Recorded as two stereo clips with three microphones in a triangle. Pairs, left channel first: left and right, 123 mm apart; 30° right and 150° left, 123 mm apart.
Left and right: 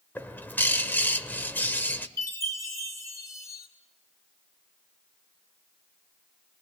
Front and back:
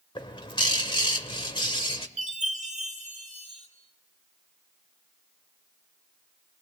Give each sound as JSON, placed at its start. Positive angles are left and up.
{"t": 0.1, "sound": "a bird", "azimuth_deg": 15, "distance_m": 1.4}
{"t": 2.2, "sound": "a chime", "azimuth_deg": 155, "distance_m": 4.5}